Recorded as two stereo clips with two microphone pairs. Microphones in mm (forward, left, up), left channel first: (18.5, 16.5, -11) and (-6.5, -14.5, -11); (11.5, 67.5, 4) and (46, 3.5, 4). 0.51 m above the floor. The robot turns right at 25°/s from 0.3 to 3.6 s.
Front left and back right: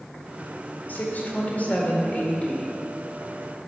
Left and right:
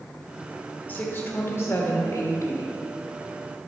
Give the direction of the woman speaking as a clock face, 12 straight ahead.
10 o'clock.